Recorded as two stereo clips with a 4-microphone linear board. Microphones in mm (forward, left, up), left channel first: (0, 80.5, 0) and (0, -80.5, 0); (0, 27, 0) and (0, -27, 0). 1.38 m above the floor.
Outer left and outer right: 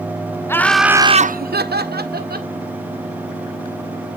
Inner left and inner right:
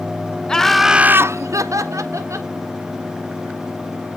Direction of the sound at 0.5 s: 15° left (ahead or behind).